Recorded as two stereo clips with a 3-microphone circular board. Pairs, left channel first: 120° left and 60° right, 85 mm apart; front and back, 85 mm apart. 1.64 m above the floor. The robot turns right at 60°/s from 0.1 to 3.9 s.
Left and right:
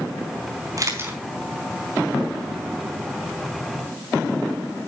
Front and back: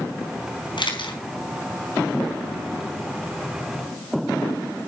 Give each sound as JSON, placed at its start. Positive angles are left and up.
{"t": 0.8, "sound": "a camera shutter", "azimuth_deg": -15, "distance_m": 4.0}